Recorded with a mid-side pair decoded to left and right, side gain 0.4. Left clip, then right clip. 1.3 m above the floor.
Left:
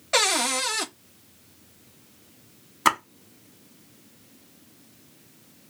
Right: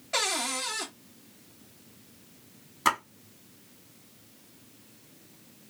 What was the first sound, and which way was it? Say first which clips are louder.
A cupboard door: left 7 dB; 55° left.